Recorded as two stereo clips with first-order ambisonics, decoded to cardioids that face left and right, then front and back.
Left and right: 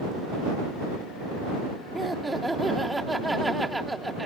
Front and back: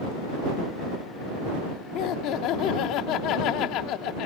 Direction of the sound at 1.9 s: 10° right.